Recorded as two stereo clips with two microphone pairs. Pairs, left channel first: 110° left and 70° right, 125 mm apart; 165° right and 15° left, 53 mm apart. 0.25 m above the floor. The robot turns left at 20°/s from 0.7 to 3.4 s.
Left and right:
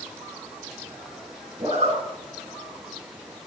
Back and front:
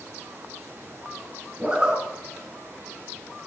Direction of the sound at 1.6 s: 50° right.